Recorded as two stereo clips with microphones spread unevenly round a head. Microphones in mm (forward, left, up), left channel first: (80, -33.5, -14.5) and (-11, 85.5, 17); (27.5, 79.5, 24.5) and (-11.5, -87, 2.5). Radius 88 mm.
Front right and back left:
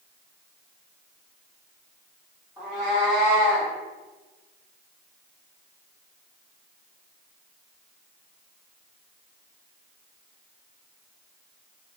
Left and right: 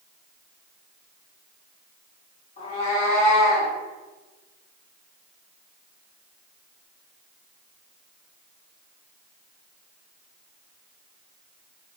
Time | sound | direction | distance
2.6 | a cat meowing | 60° left | 1.4 m